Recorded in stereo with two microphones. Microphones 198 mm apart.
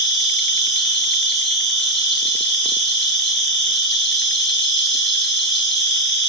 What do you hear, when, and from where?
0.0 s an insect: 65° left (ahead or behind), 5.5 m